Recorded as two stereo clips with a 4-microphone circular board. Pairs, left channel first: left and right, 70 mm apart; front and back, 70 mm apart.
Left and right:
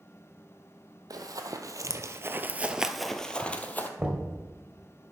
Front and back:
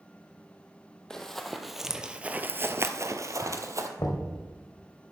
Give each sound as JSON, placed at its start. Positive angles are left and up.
{"t": 1.1, "sound": "running footsteps", "azimuth_deg": -80, "distance_m": 1.1}
{"t": 4.0, "sound": "knocking", "azimuth_deg": -20, "distance_m": 1.7}